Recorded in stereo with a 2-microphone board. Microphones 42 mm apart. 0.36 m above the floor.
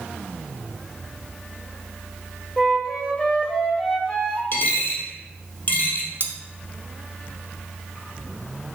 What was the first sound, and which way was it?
A flute, 20° left (ahead or behind).